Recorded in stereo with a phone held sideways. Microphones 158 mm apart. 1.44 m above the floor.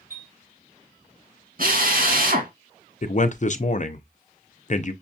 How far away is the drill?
About 3 m.